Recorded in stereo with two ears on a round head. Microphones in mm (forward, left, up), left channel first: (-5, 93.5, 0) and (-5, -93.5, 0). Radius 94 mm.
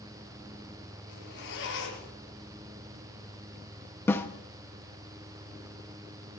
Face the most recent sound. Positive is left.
turn(degrees=10)  # may be behind; listen again after turning